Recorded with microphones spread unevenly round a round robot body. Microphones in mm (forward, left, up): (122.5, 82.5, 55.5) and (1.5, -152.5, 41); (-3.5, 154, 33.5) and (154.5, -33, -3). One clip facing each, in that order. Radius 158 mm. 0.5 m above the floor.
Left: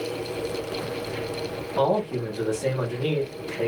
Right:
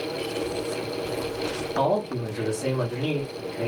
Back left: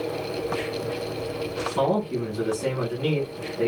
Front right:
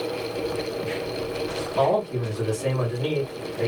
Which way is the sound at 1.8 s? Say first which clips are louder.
Left 3 dB, front right 1 dB; 165° right.